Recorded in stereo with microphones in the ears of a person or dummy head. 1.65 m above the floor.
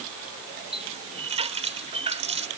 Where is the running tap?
30° right (ahead or behind).